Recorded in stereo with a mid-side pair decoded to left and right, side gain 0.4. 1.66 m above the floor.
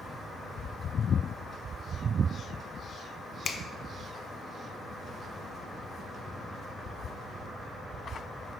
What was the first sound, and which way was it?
A finger snap, 50° left.